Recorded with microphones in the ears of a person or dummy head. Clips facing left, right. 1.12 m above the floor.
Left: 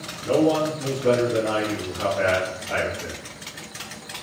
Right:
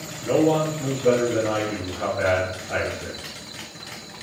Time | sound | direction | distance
0.2 | a man speaking | 25° right (ahead or behind) | 1.0 m